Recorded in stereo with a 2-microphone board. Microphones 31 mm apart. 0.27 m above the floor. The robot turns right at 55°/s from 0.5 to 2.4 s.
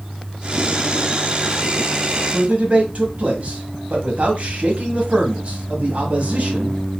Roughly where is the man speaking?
Right.